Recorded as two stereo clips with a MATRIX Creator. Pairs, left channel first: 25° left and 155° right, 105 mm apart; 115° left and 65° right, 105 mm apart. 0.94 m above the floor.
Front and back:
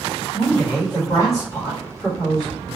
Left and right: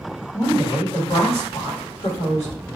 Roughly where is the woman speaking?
Ahead left.